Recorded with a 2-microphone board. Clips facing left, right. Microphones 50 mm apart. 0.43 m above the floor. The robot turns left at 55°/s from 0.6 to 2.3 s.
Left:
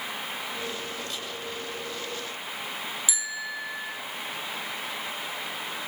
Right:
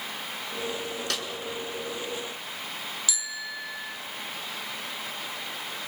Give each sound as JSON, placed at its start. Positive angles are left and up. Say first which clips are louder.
{"t": 1.1, "sound": "a snare drum", "louder": "right 4 dB", "side_deg": -80, "distance_m": 7.0}
{"t": 3.1, "sound": "a bicycle bell", "louder": "left 2 dB", "side_deg": 25, "distance_m": 4.0}